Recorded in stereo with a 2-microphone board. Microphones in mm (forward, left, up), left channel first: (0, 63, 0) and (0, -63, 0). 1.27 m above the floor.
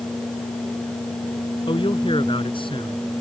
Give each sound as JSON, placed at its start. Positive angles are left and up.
{"t": 1.7, "sound": "a man speaking", "side_deg": 40}